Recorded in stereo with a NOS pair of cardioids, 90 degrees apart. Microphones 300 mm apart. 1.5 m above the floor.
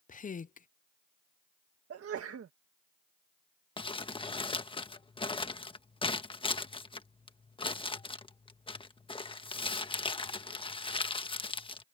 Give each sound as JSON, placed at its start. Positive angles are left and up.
{"t": 0.1, "sound": "a woman speaking", "azimuth_deg": 25}
{"t": 1.9, "sound": "a sneeze", "azimuth_deg": -50}
{"t": 3.8, "sound": "crumpling", "azimuth_deg": 15}